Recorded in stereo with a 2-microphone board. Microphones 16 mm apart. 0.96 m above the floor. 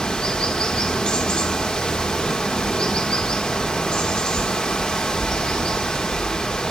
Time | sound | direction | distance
0.0 | running water | 65° left (ahead or behind) | 2 m